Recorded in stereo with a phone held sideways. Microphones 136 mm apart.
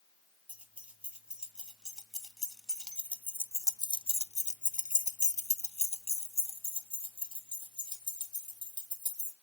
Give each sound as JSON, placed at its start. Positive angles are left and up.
{"t": 0.5, "sound": "keys jangling", "side_deg": -10, "distance_m": 2.0}